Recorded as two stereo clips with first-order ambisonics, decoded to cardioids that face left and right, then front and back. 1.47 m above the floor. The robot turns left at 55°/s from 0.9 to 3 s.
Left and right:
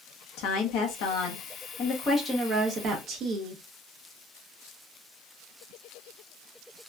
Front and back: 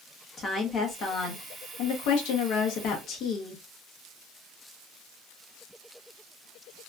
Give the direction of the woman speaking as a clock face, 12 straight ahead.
10 o'clock.